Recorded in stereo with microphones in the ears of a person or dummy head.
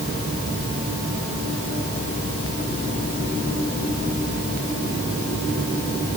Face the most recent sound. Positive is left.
No sound to turn to.